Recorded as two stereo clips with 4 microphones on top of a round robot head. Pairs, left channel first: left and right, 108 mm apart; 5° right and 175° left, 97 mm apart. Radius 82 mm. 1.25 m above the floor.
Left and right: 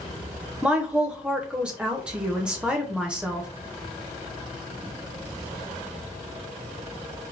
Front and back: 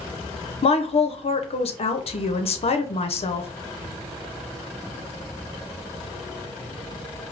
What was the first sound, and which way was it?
A woman speaking, 10° right.